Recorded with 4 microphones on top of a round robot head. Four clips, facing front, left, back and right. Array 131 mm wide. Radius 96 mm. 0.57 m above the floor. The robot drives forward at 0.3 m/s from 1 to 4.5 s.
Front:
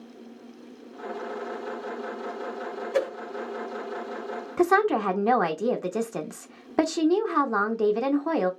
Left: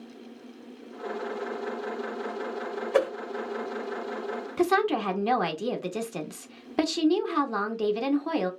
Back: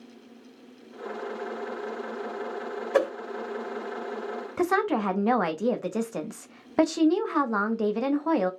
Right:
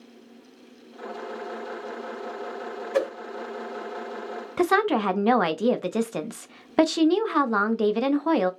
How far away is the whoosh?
About 1.7 m.